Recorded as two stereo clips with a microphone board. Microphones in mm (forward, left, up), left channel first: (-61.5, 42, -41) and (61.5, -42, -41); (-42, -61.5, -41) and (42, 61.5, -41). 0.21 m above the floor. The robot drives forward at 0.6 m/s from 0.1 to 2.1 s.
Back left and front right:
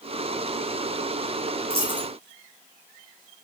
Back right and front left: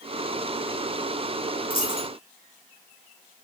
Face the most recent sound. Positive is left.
turn(degrees=-115)